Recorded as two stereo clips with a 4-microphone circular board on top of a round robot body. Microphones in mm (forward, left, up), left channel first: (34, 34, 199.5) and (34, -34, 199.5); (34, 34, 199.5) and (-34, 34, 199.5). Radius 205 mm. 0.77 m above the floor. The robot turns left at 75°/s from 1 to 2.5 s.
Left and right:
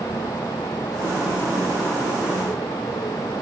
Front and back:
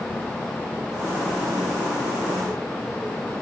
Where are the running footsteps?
No running footsteps in this recording.